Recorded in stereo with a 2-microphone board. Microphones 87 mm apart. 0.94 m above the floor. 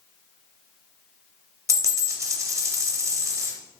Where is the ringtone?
I don't hear a ringtone.